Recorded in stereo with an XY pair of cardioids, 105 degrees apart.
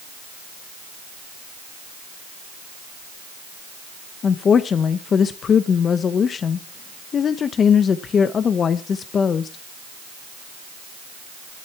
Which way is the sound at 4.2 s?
45° left.